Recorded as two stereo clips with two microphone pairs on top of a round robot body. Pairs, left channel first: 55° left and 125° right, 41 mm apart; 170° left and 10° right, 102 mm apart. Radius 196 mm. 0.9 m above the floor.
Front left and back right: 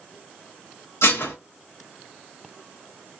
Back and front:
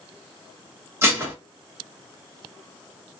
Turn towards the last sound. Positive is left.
turn(degrees=55)